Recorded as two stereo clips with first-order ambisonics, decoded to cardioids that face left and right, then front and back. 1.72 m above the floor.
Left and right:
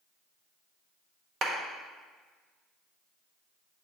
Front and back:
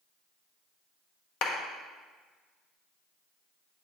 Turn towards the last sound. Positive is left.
turn(degrees=-35)